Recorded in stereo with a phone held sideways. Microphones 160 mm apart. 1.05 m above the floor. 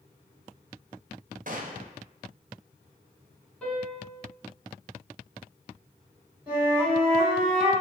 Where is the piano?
5° left (ahead or behind), 1.6 m.